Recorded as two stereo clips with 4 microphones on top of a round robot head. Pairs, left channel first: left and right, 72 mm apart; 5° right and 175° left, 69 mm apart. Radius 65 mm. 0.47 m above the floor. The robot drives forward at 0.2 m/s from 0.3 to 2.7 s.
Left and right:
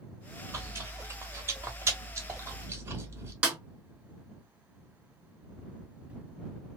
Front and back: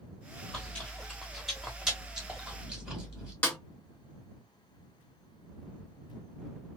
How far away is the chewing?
About 1.1 m.